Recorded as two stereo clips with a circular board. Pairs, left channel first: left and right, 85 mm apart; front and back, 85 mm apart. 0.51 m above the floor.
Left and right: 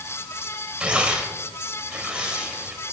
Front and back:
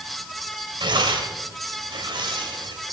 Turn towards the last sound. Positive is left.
turn(degrees=-165)